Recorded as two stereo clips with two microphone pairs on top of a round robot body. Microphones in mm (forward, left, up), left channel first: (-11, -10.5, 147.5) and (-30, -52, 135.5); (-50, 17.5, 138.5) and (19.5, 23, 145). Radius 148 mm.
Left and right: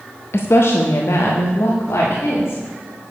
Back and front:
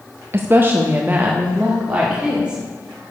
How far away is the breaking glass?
I don't hear breaking glass.